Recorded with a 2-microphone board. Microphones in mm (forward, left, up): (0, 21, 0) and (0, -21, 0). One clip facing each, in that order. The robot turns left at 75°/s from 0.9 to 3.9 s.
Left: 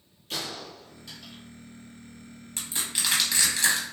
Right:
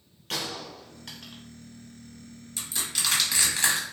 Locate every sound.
0.3 s a gunshot: 80° right, 0.8 m; by 1.4 s 45° right (ahead or behind), 0.8 m
2.6 s crushing: 50° left (ahead or behind), 1.1 m; by 3.9 s 50° right (ahead or behind), 1.1 m